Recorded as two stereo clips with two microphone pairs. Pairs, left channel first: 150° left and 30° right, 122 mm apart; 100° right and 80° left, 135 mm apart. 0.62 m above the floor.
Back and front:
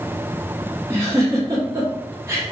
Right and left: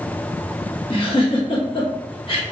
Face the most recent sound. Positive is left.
turn(degrees=-85)